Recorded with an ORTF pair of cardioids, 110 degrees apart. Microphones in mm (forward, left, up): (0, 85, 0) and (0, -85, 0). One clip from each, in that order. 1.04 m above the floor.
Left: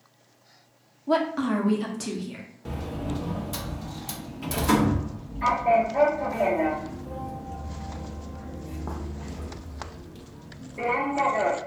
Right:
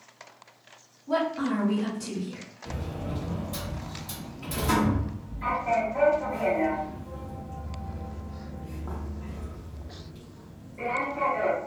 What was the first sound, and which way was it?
A woman speaking, 50° left.